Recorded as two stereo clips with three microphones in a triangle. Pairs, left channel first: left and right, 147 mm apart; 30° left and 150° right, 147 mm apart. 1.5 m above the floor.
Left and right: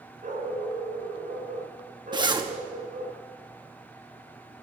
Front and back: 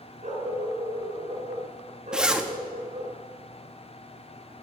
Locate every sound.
0.2 s a dog barking: 115° right, 5.5 m
2.1 s a zipper: 70° right, 1.0 m